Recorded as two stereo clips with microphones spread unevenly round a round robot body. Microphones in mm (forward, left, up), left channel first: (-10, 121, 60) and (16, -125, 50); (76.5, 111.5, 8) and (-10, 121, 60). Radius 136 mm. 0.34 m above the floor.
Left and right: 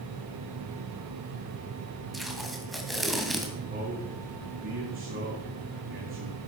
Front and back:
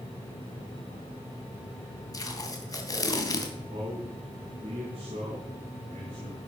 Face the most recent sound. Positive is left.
turn(degrees=-135)